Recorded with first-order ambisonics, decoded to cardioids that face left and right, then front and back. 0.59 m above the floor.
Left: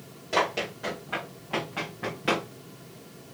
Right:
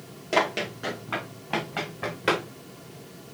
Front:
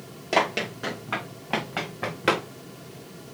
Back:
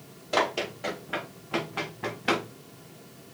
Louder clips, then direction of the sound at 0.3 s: Right 2 dB, front 3 dB; 20° right.